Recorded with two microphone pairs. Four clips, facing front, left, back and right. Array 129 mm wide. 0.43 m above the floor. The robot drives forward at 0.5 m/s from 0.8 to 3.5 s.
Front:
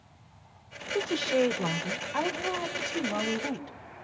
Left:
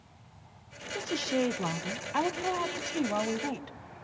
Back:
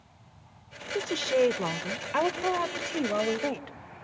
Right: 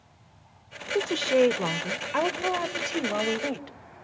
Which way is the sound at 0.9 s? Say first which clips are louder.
Right 8 dB, back 1 dB; 100° right.